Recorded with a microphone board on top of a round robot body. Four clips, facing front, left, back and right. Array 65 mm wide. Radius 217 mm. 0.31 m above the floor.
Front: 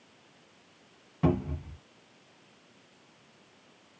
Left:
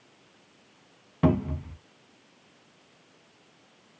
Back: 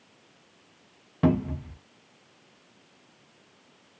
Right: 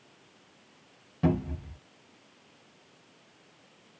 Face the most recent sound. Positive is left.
turn(degrees=130)